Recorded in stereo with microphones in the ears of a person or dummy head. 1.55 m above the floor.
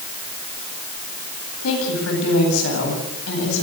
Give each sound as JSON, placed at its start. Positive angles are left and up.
{"t": 1.6, "sound": "a woman speaking", "side_deg": 80, "distance_m": 9.5}